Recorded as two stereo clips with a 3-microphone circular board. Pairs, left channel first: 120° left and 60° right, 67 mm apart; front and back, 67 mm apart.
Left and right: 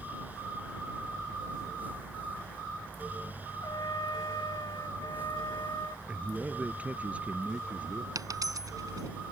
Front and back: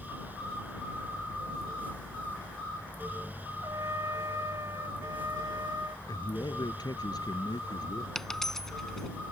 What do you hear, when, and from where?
3.6 s a trumpet: 140° left
6.1 s a man speaking: 10° left
8.2 s a dropped coin: 85° right